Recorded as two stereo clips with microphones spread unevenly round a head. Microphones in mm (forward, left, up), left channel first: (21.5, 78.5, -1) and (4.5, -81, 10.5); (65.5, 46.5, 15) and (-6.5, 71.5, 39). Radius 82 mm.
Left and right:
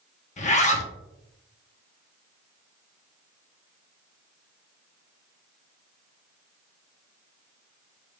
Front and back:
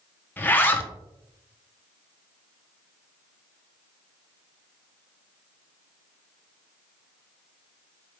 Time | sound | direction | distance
0.4 | a zipper | 40° left | 1.1 m